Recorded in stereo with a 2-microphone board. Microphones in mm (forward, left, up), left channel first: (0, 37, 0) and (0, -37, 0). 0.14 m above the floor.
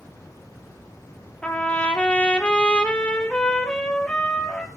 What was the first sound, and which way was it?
A trumpet, 15° left (ahead or behind).